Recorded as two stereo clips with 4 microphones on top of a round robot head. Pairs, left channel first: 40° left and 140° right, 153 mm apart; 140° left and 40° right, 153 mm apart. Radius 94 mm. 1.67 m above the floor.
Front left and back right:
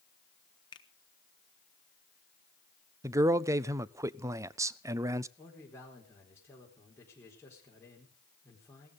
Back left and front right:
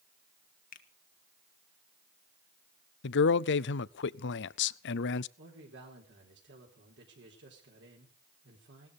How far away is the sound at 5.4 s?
About 4.5 m.